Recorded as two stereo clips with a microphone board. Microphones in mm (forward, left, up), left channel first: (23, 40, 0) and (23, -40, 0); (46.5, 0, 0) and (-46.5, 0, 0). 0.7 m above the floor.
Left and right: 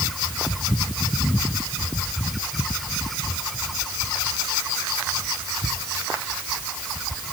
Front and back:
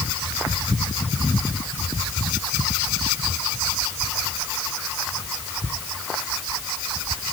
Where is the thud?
No thud in this recording.